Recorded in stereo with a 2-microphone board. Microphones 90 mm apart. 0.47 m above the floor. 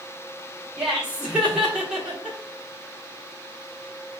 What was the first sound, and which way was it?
Laughter, 10° right (ahead or behind).